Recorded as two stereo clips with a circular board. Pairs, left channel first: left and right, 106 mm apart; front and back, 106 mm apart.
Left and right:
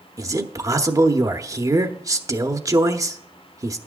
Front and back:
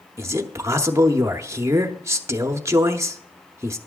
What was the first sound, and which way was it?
A man speaking, 130° right.